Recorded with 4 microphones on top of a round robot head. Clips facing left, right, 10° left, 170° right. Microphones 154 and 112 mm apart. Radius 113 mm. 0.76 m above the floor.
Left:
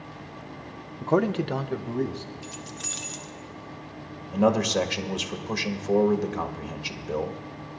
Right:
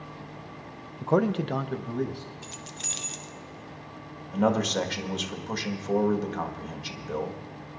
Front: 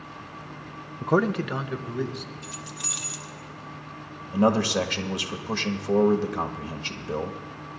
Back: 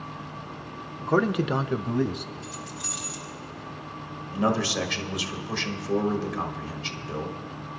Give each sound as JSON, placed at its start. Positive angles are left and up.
{"t": 1.0, "sound": "a man speaking", "azimuth_deg": 5, "distance_m": 0.6}
{"t": 2.4, "sound": "keys jangling", "azimuth_deg": -25, "distance_m": 1.1}
{"t": 4.3, "sound": "a man speaking", "azimuth_deg": 15, "distance_m": 1.5}